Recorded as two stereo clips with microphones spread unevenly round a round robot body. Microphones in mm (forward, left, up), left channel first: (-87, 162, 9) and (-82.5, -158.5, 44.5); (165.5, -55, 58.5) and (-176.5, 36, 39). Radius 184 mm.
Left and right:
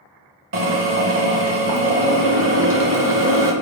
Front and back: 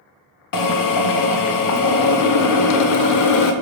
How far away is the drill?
About 0.5 m.